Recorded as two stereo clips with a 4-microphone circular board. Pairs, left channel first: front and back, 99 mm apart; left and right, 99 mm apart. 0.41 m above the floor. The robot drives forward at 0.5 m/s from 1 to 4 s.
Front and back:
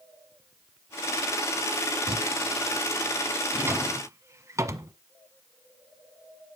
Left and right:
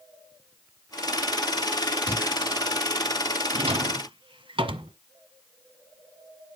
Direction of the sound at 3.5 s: 110° right.